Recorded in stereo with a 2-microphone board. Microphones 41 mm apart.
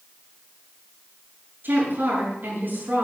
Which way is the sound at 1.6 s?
60° right (ahead or behind).